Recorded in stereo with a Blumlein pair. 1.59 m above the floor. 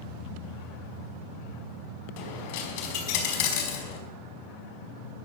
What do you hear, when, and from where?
2.2 s a dropped coin: 50° left, 5 m